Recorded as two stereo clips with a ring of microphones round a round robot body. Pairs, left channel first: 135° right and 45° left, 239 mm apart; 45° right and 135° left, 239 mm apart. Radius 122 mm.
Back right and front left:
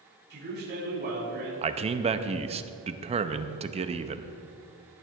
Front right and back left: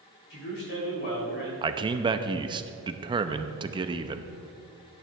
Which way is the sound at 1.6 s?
80° left.